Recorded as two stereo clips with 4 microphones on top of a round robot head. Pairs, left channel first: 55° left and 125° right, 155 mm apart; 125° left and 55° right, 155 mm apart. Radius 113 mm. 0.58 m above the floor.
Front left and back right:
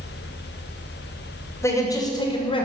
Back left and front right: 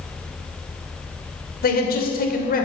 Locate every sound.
1.6 s a man speaking: 125° left, 2.5 m; by 2.6 s 105° left, 2.5 m